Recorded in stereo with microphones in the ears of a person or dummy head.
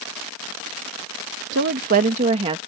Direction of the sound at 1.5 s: 55° right (ahead or behind).